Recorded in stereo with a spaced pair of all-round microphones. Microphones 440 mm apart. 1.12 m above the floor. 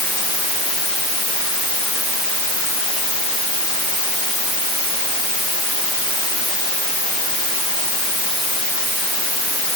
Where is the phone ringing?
No phone ringing in this recording.